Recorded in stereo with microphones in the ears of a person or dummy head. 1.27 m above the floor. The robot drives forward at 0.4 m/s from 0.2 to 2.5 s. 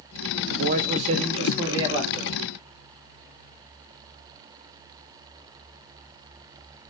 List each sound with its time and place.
0.5 s a man speaking: 45° right (ahead or behind), 0.5 m; by 2.4 s 20° right (ahead or behind), 1.1 m